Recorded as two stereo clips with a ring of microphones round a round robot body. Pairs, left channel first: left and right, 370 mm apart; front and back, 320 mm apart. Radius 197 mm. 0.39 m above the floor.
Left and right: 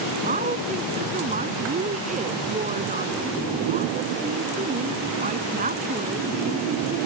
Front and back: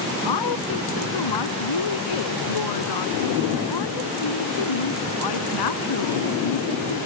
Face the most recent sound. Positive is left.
turn(degrees=-20)